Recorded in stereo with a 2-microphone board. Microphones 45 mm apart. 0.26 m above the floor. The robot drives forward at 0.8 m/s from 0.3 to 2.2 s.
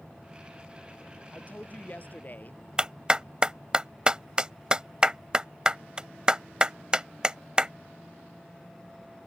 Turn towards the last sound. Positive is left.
turn(degrees=-20)  # may be behind; listen again after turning